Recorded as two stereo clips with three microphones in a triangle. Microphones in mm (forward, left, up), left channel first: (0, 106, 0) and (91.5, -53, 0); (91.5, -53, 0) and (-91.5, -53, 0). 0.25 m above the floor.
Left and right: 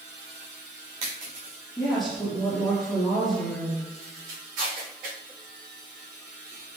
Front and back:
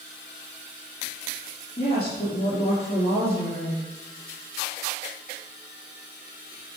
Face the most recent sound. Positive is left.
turn(degrees=55)